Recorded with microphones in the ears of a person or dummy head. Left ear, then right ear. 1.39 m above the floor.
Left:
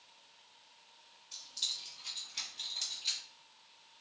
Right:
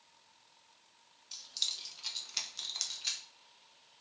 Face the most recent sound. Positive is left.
turn(degrees=-55)  # may be behind; listen again after turning